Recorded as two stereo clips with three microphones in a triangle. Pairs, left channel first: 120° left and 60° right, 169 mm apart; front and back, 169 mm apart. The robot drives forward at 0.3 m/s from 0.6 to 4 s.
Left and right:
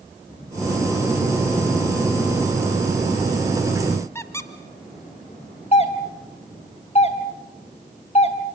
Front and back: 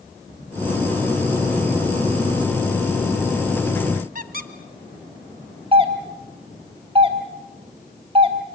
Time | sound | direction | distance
4.2 | a squeak | 165° right | 1.4 m
5.7 | a doorbell | 145° left | 2.5 m